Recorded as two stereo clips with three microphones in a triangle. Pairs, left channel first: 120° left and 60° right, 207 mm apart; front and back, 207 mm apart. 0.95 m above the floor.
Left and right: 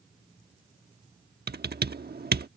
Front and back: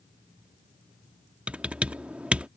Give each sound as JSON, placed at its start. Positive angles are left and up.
{"t": 1.5, "sound": "typing on a keyboard", "azimuth_deg": -95}